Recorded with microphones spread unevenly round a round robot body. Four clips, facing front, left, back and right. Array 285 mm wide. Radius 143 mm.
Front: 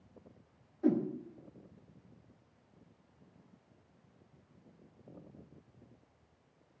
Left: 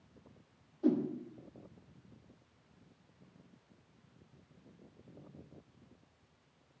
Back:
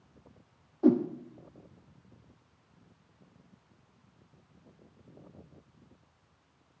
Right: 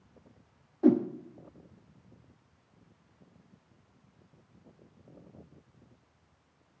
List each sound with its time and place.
0.8 s a whoosh: 130° right, 1.2 m